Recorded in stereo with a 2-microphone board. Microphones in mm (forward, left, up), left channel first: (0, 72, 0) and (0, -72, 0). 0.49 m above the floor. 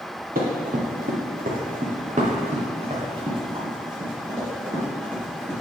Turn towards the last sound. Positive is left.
turn(degrees=-15)  # may be behind; listen again after turning